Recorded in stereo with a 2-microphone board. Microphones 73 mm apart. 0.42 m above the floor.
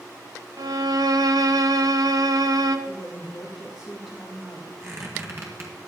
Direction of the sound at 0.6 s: 60° right (ahead or behind).